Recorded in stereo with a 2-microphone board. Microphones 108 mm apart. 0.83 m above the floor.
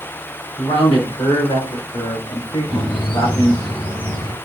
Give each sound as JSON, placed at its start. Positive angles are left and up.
{"t": 0.6, "sound": "a man speaking", "side_deg": 75, "distance_m": 3.0}
{"t": 2.7, "sound": "a bird", "side_deg": 55, "distance_m": 2.0}